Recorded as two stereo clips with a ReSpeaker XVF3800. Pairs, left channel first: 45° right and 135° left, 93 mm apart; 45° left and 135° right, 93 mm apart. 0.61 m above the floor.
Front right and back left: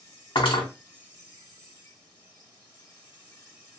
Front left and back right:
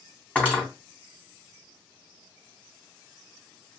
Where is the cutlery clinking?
30° right, 2.5 m.